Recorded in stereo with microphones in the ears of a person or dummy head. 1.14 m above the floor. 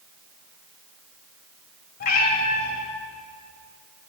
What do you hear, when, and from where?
2.0 s a cat meowing: 50° left (ahead or behind), 2.5 m